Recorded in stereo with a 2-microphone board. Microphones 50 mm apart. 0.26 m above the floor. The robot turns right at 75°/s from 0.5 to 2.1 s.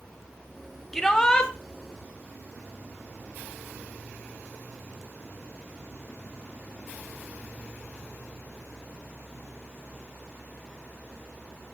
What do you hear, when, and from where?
0.9 s a shout: 10° left (ahead or behind), 1.2 m; by 1.5 s 20° left (ahead or behind), 1.2 m